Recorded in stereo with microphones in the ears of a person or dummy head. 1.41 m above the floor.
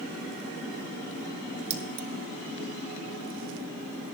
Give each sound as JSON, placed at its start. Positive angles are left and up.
{"t": 1.7, "sound": "keys jangling", "side_deg": -35, "distance_m": 0.8}